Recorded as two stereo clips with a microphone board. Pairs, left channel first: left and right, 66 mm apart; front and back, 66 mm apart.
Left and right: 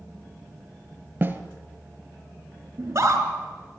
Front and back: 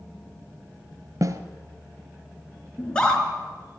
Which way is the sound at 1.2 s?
150° right.